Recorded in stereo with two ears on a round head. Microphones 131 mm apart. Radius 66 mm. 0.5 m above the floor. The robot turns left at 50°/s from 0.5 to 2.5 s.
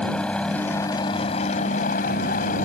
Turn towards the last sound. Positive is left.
turn(degrees=70)